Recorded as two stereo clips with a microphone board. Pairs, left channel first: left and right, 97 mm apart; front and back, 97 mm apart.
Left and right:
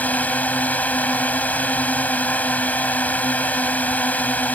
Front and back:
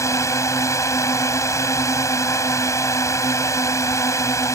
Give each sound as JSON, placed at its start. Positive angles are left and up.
{"t": 0.0, "sound": "a drone", "azimuth_deg": 30}